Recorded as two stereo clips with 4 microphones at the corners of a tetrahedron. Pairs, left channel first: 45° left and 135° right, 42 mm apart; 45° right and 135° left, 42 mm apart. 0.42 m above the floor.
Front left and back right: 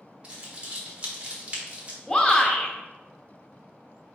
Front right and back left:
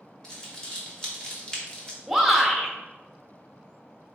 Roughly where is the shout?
Ahead left.